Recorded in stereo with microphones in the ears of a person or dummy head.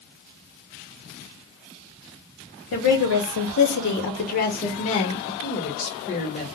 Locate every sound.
2.7 s a woman speaking: 60° left (ahead or behind), 1.0 m; by 5.3 s 30° left (ahead or behind), 1.4 m
5.4 s a woman speaking: 35° left (ahead or behind), 1.2 m